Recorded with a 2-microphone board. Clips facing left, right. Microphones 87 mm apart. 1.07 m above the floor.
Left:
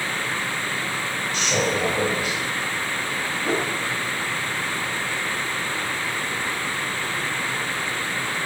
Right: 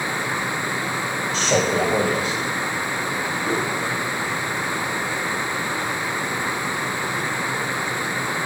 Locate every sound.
1.3 s a man speaking: 35° right (ahead or behind), 5 m
3.5 s a whoosh: 35° left (ahead or behind), 2.5 m